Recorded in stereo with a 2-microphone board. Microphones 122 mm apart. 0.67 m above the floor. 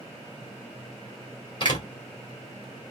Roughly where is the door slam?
Left.